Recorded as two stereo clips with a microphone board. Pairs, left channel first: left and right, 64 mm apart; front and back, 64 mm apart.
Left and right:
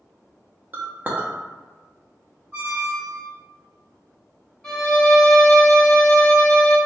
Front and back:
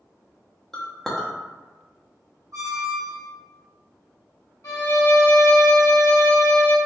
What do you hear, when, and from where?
0.7 s a clink: 75° right, 0.5 m
2.5 s a squeak: 150° right, 1.3 m
4.6 s a violin: 10° left, 1.7 m